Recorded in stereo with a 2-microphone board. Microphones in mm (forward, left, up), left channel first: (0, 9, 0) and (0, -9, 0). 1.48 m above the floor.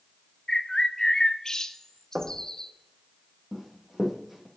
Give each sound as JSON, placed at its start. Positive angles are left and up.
{"t": 0.5, "sound": "a bird", "side_deg": 35, "distance_m": 0.5}
{"t": 2.1, "sound": "knocking", "side_deg": -90, "distance_m": 1.2}
{"t": 3.5, "sound": "running footsteps", "side_deg": -15, "distance_m": 3.0}